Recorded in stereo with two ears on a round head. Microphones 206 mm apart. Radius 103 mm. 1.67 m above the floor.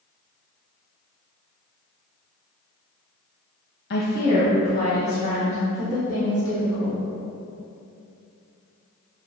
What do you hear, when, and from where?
3.9 s a woman speaking: 45° left (ahead or behind), 0.8 m; by 7.0 s 20° left (ahead or behind), 5 m